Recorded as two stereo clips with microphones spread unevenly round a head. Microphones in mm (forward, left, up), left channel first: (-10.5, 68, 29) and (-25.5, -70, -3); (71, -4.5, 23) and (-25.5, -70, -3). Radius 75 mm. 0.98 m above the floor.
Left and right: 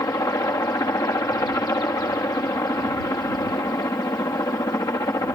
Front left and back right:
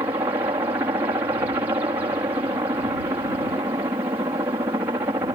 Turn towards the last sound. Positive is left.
turn(degrees=150)